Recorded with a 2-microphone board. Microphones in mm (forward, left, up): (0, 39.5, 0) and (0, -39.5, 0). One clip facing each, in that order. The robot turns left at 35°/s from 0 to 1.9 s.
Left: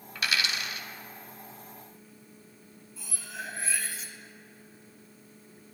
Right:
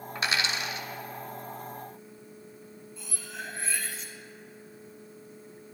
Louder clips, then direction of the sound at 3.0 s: Left 1 dB; centre (ahead or behind).